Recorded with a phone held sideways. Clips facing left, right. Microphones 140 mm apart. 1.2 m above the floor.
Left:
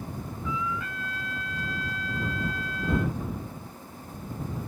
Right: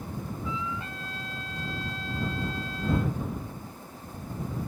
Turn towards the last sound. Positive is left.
turn(degrees=-25)  # may be behind; listen again after turning